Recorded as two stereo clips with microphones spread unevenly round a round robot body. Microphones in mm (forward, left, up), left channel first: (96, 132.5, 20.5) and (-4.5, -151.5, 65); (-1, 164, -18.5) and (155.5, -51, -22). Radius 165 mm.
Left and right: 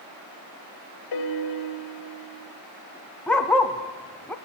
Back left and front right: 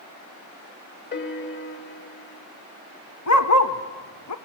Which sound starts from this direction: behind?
A dog barking, at 3.3 s.